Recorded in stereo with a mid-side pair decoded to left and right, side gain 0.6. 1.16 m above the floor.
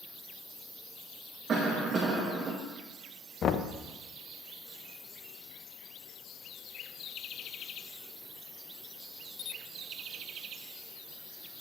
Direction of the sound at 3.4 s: 45° left.